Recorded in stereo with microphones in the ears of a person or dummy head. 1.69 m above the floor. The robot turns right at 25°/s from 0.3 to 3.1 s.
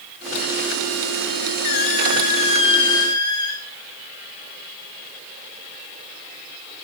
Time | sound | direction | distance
1.6 | a squeak | 120° left | 1.9 m